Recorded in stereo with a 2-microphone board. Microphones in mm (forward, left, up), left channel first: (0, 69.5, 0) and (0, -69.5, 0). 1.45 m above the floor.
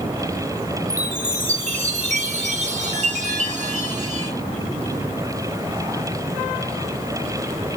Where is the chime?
55° right (ahead or behind), 1.7 m.